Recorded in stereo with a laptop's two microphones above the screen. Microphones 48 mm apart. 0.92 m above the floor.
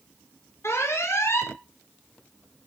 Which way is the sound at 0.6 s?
65° left (ahead or behind).